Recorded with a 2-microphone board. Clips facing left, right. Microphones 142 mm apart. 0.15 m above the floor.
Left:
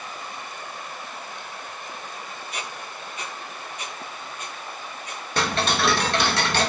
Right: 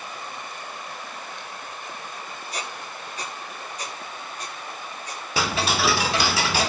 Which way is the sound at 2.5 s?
35° right (ahead or behind).